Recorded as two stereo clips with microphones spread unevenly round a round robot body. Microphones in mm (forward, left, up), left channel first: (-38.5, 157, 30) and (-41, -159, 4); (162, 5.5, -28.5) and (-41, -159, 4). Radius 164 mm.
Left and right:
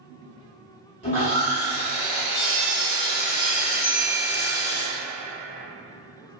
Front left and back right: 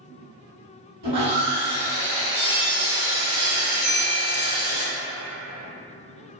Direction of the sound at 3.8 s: 155° left.